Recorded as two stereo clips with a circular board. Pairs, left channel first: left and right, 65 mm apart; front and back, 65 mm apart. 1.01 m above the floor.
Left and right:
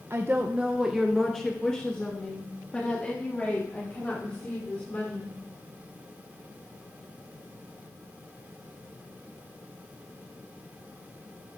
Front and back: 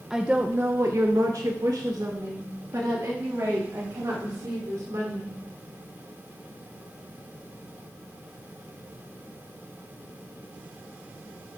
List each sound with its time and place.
0.1 s a woman speaking: 100° right, 0.6 m; by 5.3 s 155° left, 3.5 m